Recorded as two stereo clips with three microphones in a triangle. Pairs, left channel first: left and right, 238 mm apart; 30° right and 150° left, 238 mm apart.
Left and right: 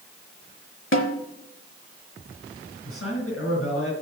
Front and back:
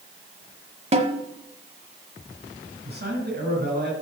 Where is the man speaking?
105° left, 4 m.